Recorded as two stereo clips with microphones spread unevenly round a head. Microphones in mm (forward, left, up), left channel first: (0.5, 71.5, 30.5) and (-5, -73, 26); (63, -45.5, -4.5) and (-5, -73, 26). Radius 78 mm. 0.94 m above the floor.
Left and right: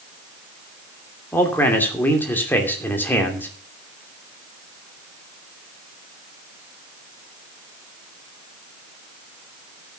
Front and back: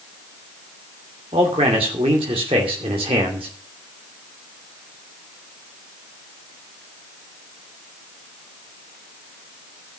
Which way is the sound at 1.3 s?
165° left.